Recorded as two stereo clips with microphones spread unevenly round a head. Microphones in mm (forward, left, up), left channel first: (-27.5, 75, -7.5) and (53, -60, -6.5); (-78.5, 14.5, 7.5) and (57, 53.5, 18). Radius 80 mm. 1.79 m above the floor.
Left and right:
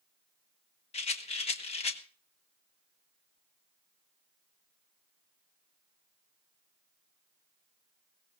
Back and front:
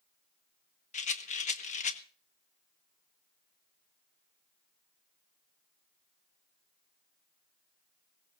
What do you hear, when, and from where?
0.9 s a rattle: 170° left, 1.4 m